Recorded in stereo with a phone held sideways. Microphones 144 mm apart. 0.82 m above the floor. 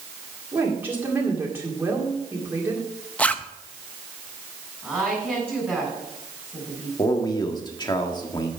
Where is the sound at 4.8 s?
10° right (ahead or behind), 6 m.